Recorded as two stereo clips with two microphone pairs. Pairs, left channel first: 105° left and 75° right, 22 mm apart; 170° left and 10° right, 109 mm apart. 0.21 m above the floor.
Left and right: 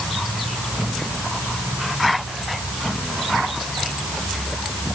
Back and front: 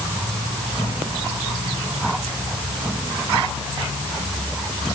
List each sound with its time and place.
Only background noise.